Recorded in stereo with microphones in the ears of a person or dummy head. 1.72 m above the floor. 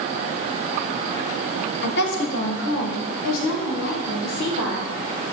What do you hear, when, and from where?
1.8 s a woman speaking: 60° left (ahead or behind), 1.6 m; by 4.9 s 65° left (ahead or behind), 3.5 m